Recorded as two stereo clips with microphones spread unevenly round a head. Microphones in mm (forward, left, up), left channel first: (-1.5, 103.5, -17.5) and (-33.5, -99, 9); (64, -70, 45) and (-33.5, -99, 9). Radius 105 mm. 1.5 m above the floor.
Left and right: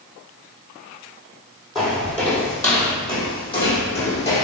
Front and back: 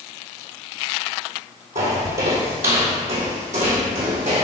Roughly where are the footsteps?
Behind.